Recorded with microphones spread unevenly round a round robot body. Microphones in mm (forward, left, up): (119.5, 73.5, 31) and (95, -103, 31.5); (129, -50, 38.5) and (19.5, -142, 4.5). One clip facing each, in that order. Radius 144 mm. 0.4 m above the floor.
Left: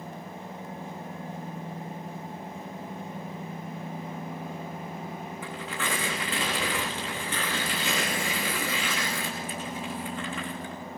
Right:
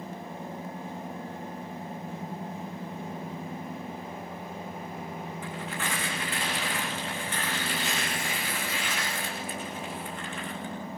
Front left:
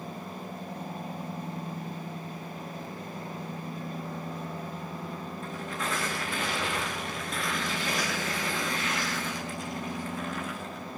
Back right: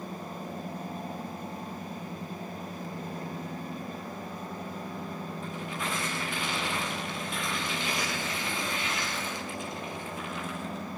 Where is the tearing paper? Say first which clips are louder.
Left 2 dB, front left 2 dB; 110° left, 8 m.